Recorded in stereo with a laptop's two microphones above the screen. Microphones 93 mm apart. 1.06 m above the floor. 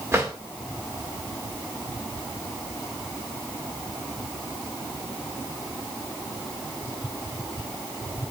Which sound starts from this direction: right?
A drawer, at 0.1 s.